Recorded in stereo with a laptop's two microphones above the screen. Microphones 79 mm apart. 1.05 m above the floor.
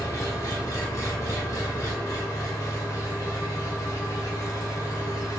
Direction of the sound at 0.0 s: 40° left (ahead or behind).